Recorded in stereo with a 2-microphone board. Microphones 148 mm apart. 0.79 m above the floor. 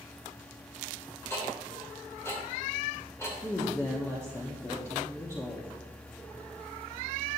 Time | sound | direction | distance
1.3 | ticking | 20° left (ahead or behind) | 2.5 m
3.4 | a woman speaking | 20° left (ahead or behind) | 1.2 m